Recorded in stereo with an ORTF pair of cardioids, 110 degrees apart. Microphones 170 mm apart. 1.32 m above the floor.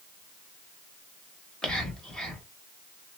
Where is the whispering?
5° left, 1.1 m.